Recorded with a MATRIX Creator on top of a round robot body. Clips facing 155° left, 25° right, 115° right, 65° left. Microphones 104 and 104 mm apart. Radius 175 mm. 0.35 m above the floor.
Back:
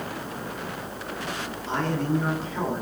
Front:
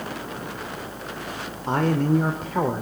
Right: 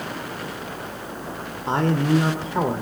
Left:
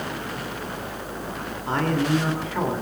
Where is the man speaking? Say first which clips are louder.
Front 5 dB, right 2 dB; 50° right, 1.6 m.